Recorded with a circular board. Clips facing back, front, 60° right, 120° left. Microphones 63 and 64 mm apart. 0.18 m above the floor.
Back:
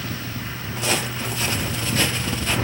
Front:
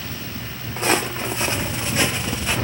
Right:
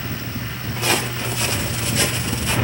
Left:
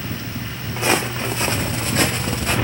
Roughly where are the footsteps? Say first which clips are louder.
Front 4 dB, left 2 dB; ahead left.